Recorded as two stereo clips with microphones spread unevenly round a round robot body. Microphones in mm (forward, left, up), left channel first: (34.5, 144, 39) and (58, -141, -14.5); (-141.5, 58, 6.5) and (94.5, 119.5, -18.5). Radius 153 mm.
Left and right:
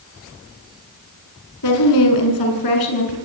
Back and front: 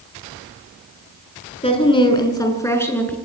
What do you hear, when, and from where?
1.6 s a woman speaking: 130° left, 6.5 m; by 3.2 s 110° left, 7 m